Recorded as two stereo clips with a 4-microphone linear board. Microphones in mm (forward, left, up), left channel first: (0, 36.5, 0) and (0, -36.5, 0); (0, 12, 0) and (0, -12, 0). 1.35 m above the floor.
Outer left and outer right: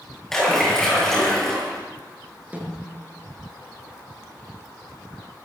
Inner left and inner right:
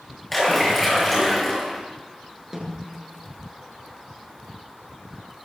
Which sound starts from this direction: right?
A snare drum, at 2.5 s.